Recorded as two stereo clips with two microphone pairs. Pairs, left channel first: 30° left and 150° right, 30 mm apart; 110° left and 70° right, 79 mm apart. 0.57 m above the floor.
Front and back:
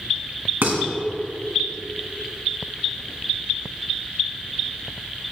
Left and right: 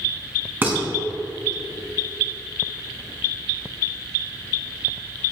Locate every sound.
0.6 s dishes clattering: 140° right, 3 m